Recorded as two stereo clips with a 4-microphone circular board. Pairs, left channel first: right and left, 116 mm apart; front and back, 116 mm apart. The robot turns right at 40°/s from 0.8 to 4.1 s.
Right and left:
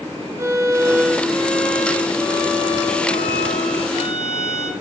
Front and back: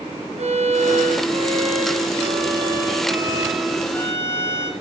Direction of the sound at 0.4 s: 155° left.